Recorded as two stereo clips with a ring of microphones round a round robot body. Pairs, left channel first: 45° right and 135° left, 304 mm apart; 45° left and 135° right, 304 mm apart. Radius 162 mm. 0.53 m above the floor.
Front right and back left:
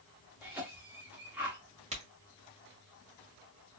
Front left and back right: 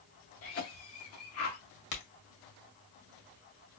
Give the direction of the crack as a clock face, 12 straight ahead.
10 o'clock.